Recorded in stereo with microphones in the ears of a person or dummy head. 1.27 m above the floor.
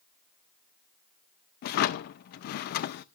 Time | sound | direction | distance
1.6 | a drawer | 55° left (ahead or behind) | 0.6 m